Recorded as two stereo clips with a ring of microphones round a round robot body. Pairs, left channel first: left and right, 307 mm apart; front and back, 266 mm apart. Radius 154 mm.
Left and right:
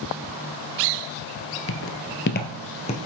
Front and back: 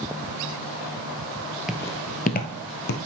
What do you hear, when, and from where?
1.7 s footsteps: 95° left, 0.9 m; by 3.0 s 25° left, 1.5 m